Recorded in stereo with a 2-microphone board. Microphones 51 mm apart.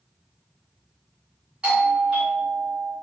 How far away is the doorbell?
About 2 m.